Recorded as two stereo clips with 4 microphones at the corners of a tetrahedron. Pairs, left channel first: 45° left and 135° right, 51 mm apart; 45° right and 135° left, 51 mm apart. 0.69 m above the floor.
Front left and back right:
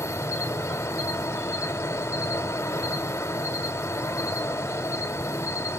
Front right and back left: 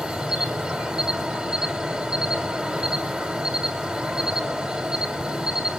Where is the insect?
65° left, 1.3 m.